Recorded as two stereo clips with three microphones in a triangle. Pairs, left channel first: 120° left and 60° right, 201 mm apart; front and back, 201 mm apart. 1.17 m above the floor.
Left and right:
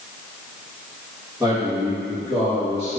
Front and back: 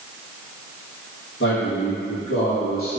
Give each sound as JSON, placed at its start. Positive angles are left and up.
{"t": 1.4, "sound": "a man speaking", "azimuth_deg": 20, "distance_m": 1.9}